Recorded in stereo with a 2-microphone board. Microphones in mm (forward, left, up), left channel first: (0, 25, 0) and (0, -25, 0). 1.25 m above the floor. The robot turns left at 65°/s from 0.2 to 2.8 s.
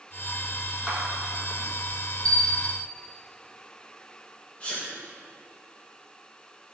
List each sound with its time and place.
0.9 s a clap: 15° right (ahead or behind), 3.5 m; by 1.0 s 5° right (ahead or behind), 3.5 m
2.2 s a bell: 165° left, 3 m; by 2.8 s 135° left, 3 m
4.6 s a sneeze: 25° left (ahead or behind), 1.2 m